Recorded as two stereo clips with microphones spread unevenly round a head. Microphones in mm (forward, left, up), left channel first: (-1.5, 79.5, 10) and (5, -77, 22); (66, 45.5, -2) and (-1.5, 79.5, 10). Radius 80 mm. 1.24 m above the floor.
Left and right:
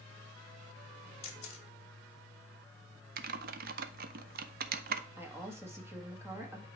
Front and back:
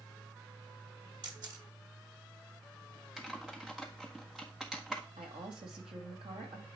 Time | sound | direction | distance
1.2 | a camera shutter | 145° left | 1.2 m
3.2 | typing on a keyboard | 120° right | 0.5 m
5.2 | a woman speaking | 165° right | 1.6 m